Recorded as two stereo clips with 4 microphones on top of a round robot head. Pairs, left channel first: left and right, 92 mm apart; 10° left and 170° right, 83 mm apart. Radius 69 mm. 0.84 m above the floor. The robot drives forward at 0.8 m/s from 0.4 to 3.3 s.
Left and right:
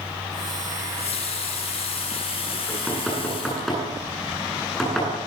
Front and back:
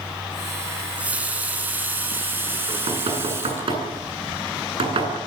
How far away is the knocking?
About 9.5 m.